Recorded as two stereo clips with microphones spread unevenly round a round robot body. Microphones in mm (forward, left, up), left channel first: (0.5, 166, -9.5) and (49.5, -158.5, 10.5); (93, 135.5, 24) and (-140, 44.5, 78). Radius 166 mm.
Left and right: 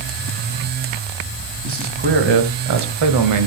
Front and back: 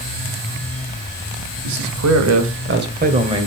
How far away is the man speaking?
About 2.5 m.